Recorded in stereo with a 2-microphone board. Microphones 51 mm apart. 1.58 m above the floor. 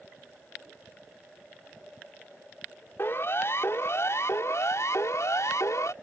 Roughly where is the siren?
Left.